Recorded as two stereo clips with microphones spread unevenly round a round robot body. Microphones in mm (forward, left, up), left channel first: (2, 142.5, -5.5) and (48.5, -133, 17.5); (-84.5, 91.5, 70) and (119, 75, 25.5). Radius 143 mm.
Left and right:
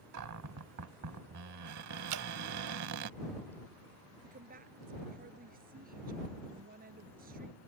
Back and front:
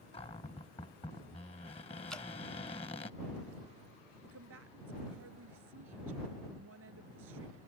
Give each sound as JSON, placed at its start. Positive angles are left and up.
{"t": 0.1, "sound": "a cupboard door", "azimuth_deg": -115}
{"t": 2.1, "sound": "dripping", "azimuth_deg": -90}
{"t": 4.2, "sound": "a woman speaking", "azimuth_deg": -20}